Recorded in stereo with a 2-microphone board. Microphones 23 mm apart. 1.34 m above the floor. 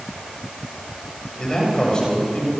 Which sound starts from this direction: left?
A man speaking, at 1.4 s.